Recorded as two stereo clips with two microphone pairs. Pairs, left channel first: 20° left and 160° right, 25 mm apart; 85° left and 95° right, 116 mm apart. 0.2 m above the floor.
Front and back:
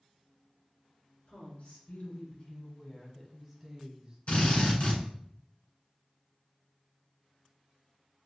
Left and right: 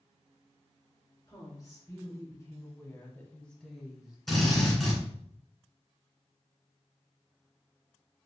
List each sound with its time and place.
1.3 s a woman speaking: 30° left, 2 m; by 4.2 s 165° right, 1.1 m
4.3 s a drill: straight ahead, 2 m